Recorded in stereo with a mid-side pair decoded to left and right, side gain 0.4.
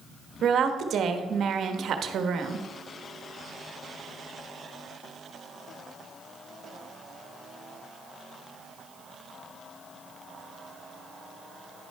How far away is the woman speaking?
About 1.2 m.